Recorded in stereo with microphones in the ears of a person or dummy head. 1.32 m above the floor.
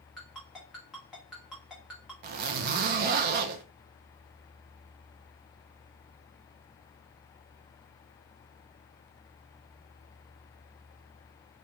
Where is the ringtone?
5° right (ahead or behind), 1.0 m.